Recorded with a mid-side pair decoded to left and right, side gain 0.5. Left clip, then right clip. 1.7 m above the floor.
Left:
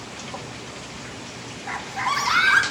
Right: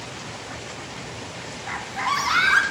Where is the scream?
5° left, 2.0 m.